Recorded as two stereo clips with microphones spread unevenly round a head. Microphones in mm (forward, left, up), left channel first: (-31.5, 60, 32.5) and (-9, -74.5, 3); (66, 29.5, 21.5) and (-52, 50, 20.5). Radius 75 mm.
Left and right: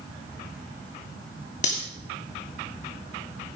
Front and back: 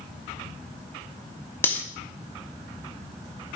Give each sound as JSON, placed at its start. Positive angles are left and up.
{"t": 1.6, "sound": "cutlery clinking", "azimuth_deg": 60, "distance_m": 2.5}